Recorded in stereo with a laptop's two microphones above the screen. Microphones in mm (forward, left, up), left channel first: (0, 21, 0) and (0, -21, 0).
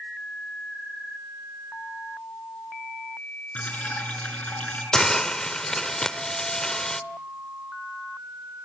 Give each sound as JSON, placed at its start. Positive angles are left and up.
{"t": 3.5, "sound": "dripping", "side_deg": 35, "distance_m": 5.0}
{"t": 4.9, "sound": "a hiss", "side_deg": 15, "distance_m": 0.9}